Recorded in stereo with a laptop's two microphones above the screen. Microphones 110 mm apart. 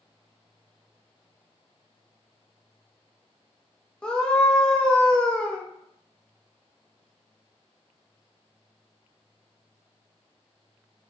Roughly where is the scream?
Centre.